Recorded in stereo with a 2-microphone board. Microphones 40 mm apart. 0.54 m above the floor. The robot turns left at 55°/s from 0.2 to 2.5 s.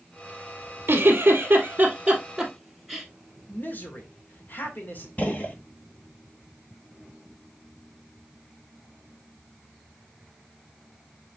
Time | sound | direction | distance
0.9 | a giggle | 80° right | 2.0 m
3.5 | a man speaking | 50° left (ahead or behind) | 1.9 m
5.2 | a gunshot | 40° left (ahead or behind) | 1.4 m